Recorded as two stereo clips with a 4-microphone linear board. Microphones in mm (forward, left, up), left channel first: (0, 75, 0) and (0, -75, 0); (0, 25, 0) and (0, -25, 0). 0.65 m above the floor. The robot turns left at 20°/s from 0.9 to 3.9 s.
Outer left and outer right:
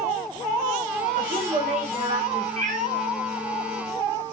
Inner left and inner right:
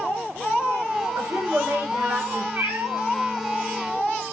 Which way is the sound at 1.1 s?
65° right (ahead or behind).